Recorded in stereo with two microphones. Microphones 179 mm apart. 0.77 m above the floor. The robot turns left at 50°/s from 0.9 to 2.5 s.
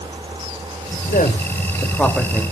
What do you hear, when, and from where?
1.1 s a man speaking: 55° left (ahead or behind), 2.5 m; by 2.4 s 10° right (ahead or behind), 2.5 m